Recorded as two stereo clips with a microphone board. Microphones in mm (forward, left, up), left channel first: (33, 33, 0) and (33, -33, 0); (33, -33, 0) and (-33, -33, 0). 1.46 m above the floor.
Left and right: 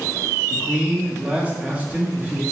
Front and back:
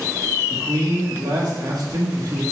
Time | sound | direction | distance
0.5 | a man speaking | 160° right | 1.7 m